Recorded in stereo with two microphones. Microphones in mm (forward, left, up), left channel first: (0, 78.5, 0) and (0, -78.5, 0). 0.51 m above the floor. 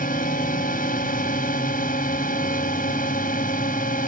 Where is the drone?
65° left (ahead or behind).